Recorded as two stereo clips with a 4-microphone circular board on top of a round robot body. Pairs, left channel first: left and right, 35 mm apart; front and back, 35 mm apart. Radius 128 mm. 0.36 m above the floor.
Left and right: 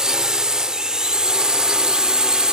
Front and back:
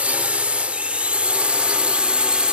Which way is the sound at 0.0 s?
150° right.